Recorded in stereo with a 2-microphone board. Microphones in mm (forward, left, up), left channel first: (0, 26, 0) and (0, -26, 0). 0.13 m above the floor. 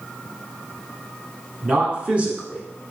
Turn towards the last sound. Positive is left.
turn(degrees=-25)  # may be behind; listen again after turning